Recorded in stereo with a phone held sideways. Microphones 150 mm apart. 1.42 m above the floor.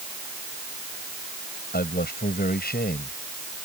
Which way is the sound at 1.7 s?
85° left.